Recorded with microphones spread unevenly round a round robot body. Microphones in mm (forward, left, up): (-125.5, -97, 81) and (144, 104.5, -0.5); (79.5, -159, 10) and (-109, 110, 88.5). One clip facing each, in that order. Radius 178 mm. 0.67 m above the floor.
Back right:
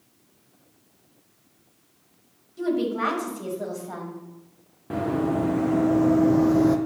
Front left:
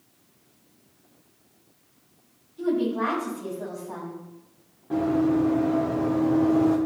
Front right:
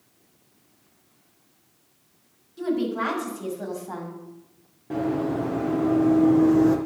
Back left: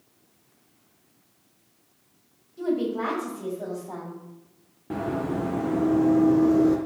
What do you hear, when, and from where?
2.6 s a woman speaking: 120° right, 4 m; by 4.2 s 110° right, 4.5 m
4.9 s running footsteps: 175° right, 2.5 m; by 6.8 s 140° right, 1.2 m